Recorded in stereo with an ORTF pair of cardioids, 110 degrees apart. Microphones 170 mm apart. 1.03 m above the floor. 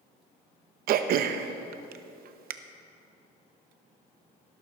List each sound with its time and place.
0.9 s throat clearing: 65° right, 0.8 m